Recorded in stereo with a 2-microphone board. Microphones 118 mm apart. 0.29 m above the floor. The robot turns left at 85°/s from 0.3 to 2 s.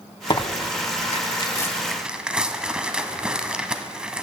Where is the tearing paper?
40° left (ahead or behind), 0.5 m; by 4.2 s 10° right (ahead or behind), 0.5 m.